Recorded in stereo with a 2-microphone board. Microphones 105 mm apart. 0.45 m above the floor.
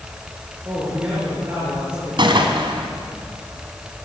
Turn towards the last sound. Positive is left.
turn(degrees=-50)  # may be behind; listen again after turning